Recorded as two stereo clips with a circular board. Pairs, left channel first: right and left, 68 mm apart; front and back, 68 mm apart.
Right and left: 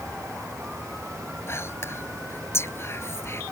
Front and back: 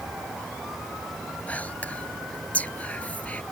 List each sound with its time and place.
1.5 s whispering: 60° right